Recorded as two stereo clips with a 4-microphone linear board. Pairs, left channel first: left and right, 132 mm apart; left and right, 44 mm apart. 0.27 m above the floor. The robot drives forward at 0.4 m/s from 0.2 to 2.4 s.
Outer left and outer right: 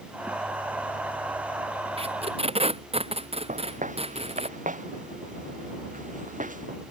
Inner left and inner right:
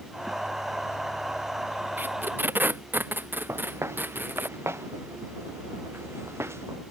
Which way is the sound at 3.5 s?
75° right (ahead or behind).